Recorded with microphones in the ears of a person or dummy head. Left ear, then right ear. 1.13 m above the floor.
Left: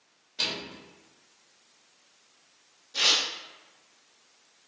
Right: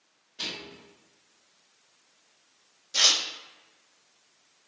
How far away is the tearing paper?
About 0.5 m.